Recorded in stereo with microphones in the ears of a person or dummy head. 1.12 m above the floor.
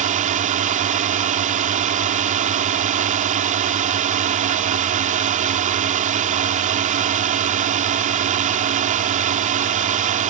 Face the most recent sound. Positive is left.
turn(degrees=-35)  # may be behind; listen again after turning